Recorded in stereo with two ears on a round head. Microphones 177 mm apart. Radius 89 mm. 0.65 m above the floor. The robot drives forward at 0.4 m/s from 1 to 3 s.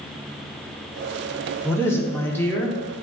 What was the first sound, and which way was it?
A woman speaking, 15° left (ahead or behind).